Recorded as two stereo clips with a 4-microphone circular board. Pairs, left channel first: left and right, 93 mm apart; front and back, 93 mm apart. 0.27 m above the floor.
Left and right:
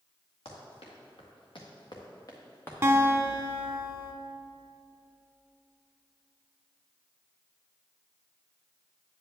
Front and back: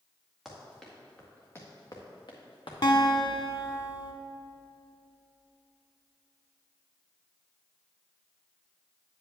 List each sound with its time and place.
0.5 s running footsteps: 90° left, 2.5 m; by 2.7 s 25° left, 1.8 m
2.8 s a guitar: 30° right, 0.7 m